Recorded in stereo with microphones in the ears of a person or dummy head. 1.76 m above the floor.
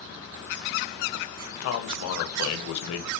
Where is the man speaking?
85° left, 0.5 m.